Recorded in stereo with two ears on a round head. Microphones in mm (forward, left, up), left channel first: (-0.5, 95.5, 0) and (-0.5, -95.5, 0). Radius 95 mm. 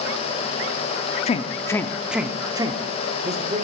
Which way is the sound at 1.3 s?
30° left (ahead or behind).